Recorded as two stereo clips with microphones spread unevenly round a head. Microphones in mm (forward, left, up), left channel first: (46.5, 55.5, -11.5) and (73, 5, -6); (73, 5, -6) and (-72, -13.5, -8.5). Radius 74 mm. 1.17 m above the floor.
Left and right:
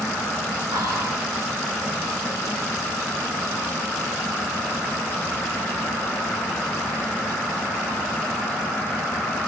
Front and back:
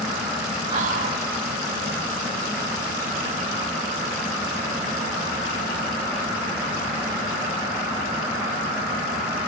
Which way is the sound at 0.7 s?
120° right.